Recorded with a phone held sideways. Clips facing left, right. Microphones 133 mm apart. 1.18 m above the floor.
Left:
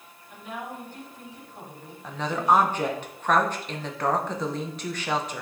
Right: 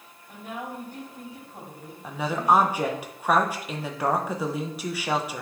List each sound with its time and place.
0.3 s a woman speaking: 60° right (ahead or behind), 4 m
2.0 s a woman speaking: 10° right (ahead or behind), 1.0 m